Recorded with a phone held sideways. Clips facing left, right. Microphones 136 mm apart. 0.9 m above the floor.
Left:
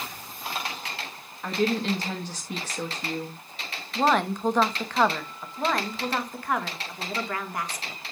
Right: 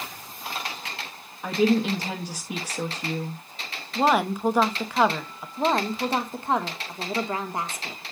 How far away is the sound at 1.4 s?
About 1.2 m.